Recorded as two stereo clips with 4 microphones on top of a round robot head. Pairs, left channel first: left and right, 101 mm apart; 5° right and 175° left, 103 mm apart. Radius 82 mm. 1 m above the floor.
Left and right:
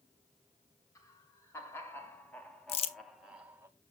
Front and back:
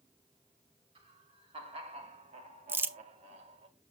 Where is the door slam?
I don't hear a door slam.